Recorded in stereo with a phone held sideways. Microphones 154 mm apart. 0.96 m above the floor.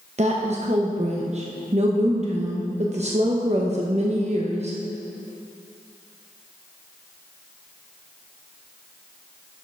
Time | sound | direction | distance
0.2 | a woman speaking | 45° right (ahead or behind) | 0.8 m